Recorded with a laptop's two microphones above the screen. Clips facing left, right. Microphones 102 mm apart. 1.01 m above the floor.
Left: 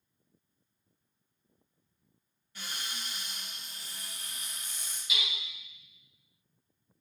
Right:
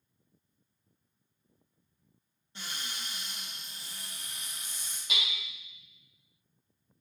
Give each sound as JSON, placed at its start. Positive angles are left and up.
{"t": 2.5, "sound": "a cupboard door", "side_deg": -25, "distance_m": 1.6}
{"t": 5.1, "sound": "hammering", "side_deg": -55, "distance_m": 2.0}